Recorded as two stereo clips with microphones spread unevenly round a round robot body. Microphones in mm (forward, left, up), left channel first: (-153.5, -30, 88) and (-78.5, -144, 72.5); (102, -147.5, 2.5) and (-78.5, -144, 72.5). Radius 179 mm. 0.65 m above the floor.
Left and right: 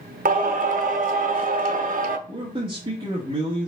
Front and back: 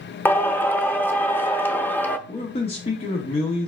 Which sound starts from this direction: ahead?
A man speaking, at 2.3 s.